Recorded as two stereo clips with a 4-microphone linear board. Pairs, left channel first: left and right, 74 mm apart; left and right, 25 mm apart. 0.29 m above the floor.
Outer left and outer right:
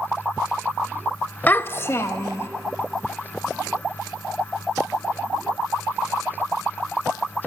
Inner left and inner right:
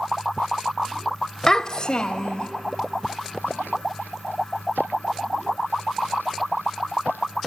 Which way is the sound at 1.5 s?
25° left (ahead or behind).